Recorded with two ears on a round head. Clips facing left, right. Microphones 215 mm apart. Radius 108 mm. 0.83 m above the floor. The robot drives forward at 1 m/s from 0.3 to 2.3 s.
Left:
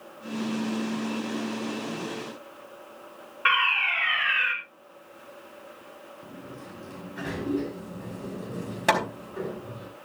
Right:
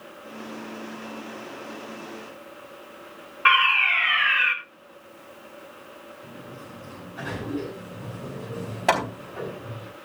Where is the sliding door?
30° left (ahead or behind), 7.5 m.